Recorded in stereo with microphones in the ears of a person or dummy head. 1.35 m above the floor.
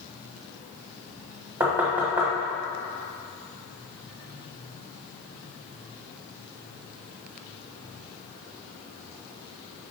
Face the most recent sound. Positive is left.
turn(degrees=-10)  # may be behind; listen again after turning